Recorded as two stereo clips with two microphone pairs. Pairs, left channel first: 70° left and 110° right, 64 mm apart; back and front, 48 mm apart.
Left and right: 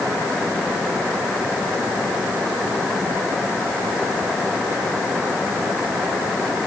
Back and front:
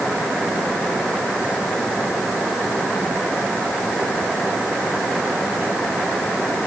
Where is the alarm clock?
No alarm clock in this recording.